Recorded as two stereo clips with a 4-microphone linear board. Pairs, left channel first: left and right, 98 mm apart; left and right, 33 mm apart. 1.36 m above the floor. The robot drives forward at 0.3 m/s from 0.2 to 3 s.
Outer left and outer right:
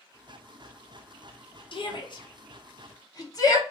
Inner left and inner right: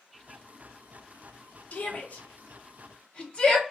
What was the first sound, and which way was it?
A shout, 55° left (ahead or behind).